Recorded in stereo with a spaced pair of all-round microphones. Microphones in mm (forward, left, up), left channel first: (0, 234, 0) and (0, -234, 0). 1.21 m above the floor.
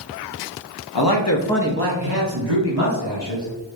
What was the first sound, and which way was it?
A man speaking, 60° left (ahead or behind).